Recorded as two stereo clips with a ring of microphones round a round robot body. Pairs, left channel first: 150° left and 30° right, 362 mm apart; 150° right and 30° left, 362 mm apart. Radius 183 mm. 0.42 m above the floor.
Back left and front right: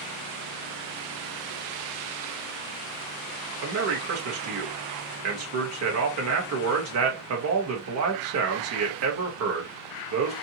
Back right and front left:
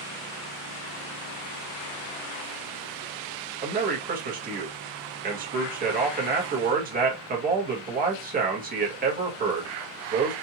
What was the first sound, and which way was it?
A man speaking, 25° right.